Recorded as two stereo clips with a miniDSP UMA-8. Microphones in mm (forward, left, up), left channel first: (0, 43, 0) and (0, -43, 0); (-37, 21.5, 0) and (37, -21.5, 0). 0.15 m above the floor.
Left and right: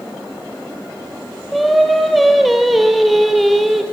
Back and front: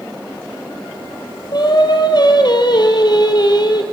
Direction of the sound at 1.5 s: Straight behind.